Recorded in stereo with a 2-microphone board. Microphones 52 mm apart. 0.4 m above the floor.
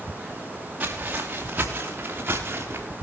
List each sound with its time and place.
0.8 s footsteps: 25° right (ahead or behind), 3.5 m; by 2.9 s 40° right (ahead or behind), 4.5 m